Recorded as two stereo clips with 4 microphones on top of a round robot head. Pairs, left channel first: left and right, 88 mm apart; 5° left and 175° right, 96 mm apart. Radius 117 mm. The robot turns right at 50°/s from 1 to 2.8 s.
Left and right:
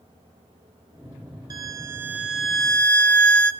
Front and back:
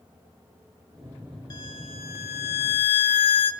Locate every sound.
1.5 s a violin: 50° right, 1.9 m; by 3.5 s 15° left, 1.9 m